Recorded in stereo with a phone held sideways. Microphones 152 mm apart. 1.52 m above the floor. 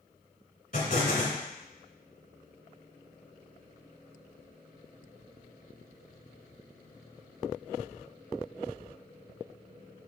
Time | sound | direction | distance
0.7 | an explosion | 55° left (ahead or behind) | 2 m